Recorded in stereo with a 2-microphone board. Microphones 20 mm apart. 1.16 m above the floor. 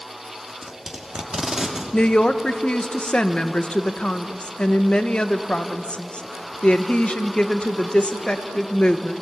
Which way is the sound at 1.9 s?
65° left (ahead or behind).